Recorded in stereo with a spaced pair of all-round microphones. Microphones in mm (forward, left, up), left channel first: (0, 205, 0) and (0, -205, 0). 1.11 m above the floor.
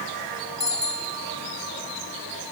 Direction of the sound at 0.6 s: 25° right (ahead or behind).